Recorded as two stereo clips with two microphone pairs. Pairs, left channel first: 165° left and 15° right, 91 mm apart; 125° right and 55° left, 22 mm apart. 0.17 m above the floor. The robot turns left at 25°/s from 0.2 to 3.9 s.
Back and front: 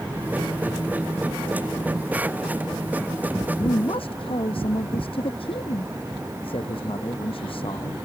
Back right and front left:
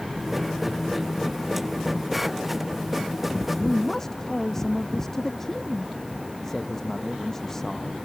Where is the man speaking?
170° left; by 7.9 s 165° left.